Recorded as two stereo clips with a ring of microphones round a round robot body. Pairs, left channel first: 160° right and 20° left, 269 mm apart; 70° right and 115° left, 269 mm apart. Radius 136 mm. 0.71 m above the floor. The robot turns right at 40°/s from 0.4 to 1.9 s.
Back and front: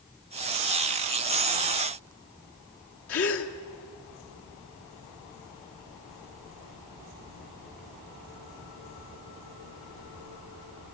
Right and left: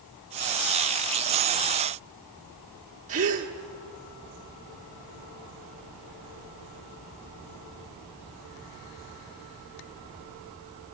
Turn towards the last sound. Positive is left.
turn(degrees=170)